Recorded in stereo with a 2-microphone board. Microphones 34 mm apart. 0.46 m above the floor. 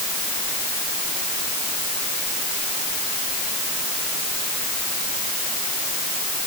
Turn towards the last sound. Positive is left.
No sound to turn to.